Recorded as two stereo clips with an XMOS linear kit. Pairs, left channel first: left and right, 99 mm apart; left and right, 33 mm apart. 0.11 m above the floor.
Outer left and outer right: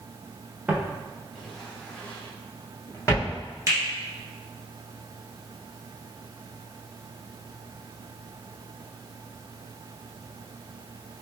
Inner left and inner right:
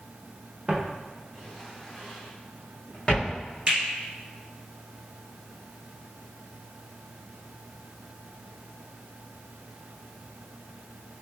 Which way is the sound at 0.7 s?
15° right (ahead or behind).